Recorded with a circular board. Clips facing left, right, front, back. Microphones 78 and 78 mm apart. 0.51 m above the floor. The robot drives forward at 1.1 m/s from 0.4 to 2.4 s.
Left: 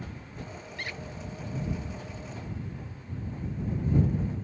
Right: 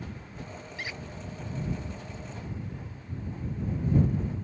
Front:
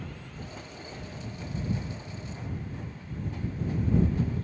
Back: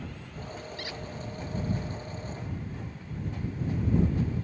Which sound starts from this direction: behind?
A squeak, at 0.8 s.